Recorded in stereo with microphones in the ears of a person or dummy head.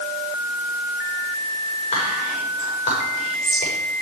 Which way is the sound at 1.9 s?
45° left (ahead or behind).